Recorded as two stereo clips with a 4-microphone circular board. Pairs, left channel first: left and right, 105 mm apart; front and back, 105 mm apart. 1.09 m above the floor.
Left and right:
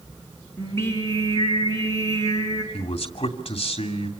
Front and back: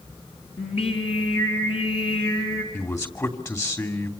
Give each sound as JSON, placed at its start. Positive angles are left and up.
{"t": 0.6, "sound": "singing", "azimuth_deg": 25, "distance_m": 5.0}
{"t": 2.7, "sound": "a man speaking", "azimuth_deg": 60, "distance_m": 2.5}